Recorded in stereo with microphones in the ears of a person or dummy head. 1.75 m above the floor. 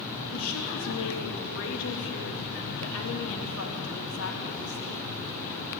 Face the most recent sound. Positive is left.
turn(degrees=75)  # may be behind; listen again after turning